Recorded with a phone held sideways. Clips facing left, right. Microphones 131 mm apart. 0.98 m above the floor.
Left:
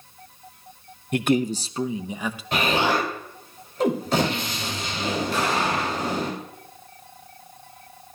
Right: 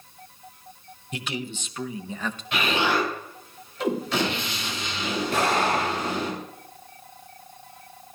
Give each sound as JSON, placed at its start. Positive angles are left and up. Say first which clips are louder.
{"t": 1.1, "sound": "a man speaking", "louder": "left 12 dB", "side_deg": 55, "distance_m": 0.6}
{"t": 2.5, "sound": "an explosion", "louder": "left 2 dB", "side_deg": 45, "distance_m": 3.0}
{"t": 5.3, "sound": "an explosion", "louder": "right 4 dB", "side_deg": -60, "distance_m": 3.0}